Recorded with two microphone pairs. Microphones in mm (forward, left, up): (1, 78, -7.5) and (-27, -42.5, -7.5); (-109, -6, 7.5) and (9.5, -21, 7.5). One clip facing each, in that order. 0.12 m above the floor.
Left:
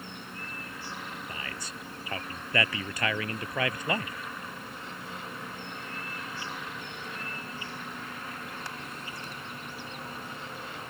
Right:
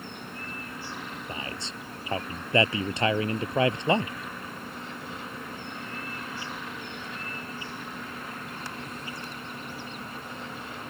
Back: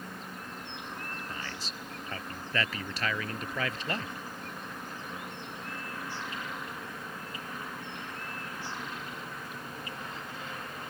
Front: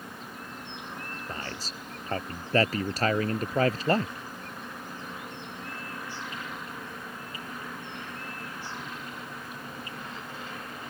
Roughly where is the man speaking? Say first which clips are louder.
Right 3 dB, front 3 dB; ahead right.